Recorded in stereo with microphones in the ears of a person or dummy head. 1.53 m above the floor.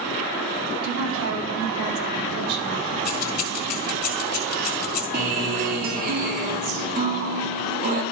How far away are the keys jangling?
About 1.4 m.